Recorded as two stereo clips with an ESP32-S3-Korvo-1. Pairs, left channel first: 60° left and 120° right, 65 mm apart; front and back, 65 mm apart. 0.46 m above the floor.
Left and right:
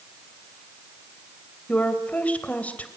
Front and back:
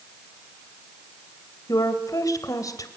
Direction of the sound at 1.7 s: 5° right.